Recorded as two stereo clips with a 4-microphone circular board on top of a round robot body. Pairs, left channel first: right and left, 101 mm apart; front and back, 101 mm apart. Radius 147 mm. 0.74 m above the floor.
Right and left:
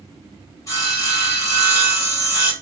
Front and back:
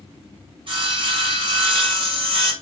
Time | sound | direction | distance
0.7 | sawing | 145° right | 3.5 m